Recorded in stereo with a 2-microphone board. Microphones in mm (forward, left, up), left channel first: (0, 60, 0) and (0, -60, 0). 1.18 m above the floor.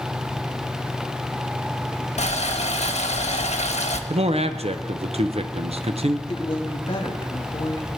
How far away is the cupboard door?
I don't hear a cupboard door.